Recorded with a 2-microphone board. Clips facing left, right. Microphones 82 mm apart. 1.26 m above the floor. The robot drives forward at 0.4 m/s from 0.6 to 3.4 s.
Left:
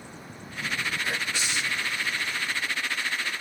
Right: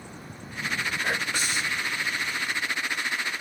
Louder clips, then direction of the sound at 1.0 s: Right 2 dB; 50° right (ahead or behind).